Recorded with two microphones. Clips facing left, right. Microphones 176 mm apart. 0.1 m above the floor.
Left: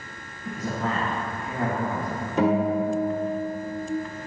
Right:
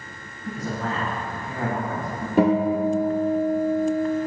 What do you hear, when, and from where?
0.4 s a man speaking: 20° left (ahead or behind), 1.3 m
2.4 s a guitar: 50° right (ahead or behind), 1.2 m